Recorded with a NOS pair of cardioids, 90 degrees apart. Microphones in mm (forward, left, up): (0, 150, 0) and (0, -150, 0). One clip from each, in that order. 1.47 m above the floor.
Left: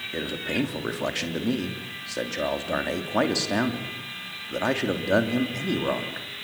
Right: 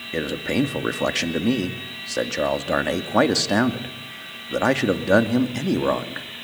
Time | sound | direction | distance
0.1 | a man speaking | 30° right | 2.5 m